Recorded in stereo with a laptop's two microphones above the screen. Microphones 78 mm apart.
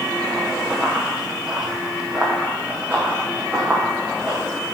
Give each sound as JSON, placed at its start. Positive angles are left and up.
{"t": 0.7, "sound": "running footsteps", "side_deg": 0, "distance_m": 1.1}